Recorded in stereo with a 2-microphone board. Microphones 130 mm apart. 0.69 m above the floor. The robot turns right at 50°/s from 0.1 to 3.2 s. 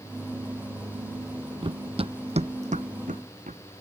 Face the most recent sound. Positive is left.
turn(degrees=-75)  # may be behind; listen again after turning